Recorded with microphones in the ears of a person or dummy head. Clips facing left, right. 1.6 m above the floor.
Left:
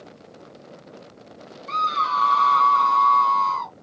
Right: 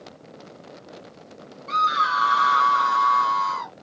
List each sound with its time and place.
1.7 s a scream: 15° right (ahead or behind)